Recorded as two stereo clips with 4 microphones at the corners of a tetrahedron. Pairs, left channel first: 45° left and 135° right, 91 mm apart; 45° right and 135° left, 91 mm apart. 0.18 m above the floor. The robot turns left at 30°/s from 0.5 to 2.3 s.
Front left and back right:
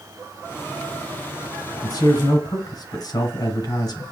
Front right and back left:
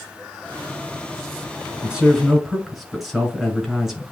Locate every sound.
1.8 s a man speaking: 60° left, 2.0 m; by 4.1 s 45° left, 2.0 m